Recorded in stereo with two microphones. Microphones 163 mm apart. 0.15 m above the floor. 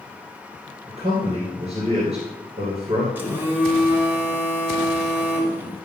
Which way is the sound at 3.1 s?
10° right (ahead or behind).